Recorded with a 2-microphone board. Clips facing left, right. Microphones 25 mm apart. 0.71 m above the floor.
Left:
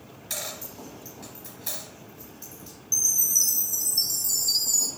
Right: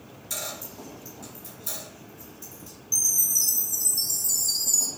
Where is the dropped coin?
45° left (ahead or behind), 1.4 m.